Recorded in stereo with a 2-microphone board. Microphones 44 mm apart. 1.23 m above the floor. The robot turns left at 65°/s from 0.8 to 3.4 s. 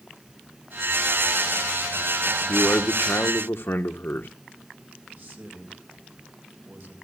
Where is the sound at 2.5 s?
135° left, 1.0 m; by 4.3 s 75° left, 1.0 m.